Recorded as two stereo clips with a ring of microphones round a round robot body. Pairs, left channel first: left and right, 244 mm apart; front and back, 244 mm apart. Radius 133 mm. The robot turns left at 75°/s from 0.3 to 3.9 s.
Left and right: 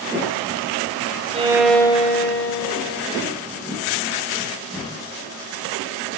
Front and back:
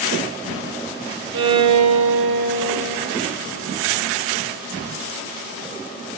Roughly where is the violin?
Behind right.